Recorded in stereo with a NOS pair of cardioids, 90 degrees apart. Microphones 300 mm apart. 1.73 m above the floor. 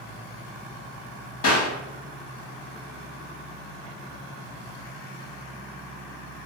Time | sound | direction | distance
1.4 | a clap | 65° left | 1.6 m